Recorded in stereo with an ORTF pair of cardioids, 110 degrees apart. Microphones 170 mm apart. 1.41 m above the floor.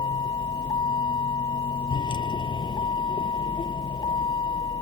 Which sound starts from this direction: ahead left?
A vehicle, at 0.0 s.